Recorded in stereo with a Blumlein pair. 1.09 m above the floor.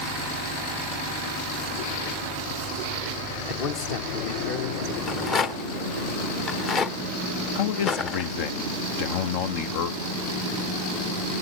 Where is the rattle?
25° left, 1.3 m.